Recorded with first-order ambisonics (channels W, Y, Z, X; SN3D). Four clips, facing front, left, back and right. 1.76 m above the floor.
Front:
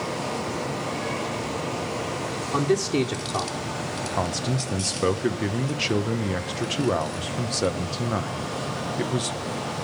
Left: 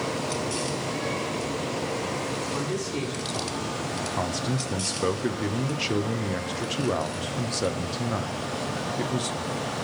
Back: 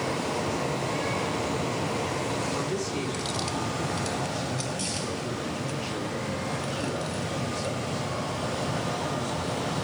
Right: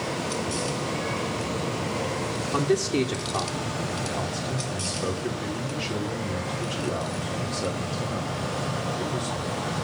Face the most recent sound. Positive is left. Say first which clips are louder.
# left 1 dB, front 4 dB
turn(degrees=20)